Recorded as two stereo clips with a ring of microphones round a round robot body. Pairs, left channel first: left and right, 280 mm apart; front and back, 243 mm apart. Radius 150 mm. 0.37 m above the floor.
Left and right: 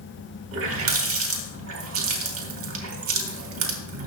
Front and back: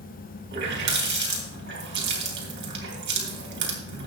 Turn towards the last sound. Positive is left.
turn(degrees=-130)